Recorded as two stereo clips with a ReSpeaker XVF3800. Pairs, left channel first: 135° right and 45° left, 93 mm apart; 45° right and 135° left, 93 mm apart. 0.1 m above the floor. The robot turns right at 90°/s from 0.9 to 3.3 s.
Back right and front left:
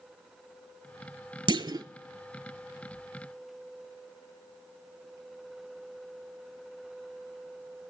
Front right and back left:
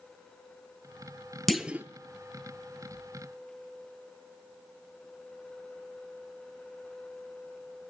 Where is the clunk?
45° left, 0.6 m; by 1.9 s 75° left, 0.6 m.